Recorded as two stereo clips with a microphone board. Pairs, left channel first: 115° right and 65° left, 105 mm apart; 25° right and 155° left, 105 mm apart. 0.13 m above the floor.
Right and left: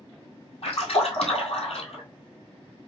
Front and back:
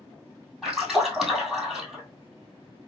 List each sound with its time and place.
0.6 s a splash: 115° right, 1.9 m